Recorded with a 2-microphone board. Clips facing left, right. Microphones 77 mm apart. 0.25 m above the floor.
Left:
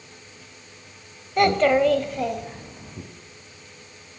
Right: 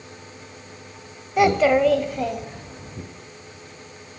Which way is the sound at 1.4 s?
5° right (ahead or behind).